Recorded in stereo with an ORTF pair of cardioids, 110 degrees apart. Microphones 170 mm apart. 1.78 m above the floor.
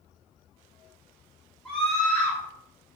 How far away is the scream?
About 4 m.